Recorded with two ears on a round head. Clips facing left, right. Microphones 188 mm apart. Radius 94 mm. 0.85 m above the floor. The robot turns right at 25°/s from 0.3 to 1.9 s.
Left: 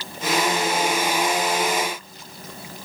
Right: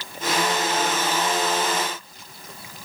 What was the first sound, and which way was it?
Only background noise.